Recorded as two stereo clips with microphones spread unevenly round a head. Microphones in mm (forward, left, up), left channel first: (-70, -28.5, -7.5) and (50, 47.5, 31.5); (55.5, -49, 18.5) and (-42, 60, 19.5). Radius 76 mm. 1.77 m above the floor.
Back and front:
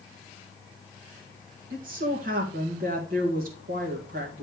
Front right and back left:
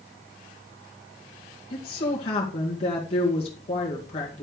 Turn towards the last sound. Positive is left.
turn(degrees=5)